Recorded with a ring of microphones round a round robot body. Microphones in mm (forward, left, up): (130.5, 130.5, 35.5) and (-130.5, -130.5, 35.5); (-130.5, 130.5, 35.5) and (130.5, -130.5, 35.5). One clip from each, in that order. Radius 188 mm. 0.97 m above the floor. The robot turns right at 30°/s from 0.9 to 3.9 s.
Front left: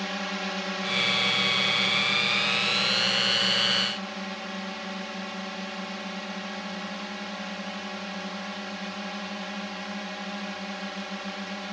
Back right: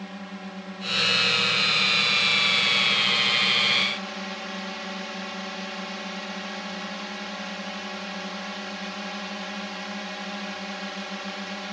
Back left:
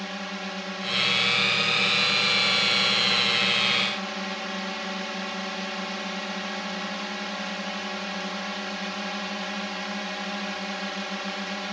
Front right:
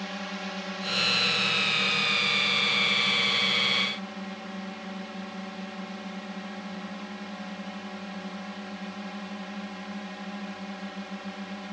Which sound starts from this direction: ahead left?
A drone, at 0.0 s.